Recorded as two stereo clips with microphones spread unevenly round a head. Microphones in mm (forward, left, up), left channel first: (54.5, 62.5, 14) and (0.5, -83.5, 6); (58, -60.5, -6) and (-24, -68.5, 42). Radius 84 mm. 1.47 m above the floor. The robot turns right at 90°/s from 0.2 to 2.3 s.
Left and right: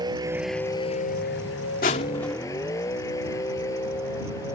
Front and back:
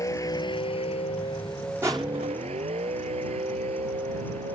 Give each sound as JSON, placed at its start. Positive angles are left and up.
{"t": 0.0, "sound": "a vehicle", "azimuth_deg": -45}
{"t": 1.8, "sound": "crushing", "azimuth_deg": 115}